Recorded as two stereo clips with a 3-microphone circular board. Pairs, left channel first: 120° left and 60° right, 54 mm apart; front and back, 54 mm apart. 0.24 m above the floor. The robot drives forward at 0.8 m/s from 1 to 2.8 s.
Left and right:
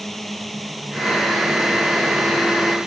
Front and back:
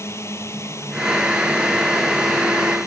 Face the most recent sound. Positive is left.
turn(degrees=20)